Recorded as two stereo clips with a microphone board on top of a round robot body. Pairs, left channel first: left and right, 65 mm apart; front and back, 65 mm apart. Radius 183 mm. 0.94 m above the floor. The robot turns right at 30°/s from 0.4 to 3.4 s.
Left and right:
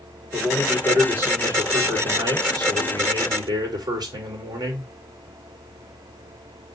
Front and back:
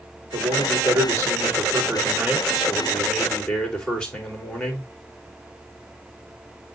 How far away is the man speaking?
About 4 m.